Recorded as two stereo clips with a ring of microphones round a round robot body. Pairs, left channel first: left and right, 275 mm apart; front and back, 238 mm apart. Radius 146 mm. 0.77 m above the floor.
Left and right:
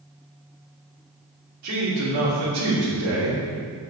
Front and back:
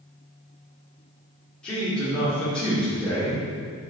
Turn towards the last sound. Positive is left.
turn(degrees=-85)